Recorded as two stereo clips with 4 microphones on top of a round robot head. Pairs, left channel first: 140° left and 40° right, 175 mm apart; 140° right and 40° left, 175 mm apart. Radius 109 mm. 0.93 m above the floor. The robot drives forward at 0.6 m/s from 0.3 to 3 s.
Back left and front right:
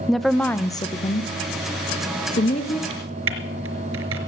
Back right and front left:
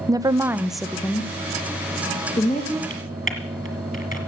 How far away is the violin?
I don't hear a violin.